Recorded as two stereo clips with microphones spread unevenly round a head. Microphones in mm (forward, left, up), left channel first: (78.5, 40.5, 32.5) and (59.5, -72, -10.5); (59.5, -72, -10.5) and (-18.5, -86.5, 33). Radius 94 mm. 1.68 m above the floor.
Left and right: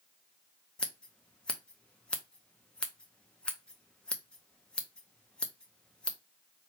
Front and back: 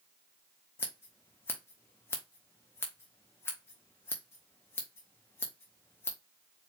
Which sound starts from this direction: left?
Scissors, at 0.8 s.